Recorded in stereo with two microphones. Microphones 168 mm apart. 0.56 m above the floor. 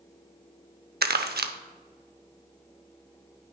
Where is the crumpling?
70° right (ahead or behind), 0.6 m.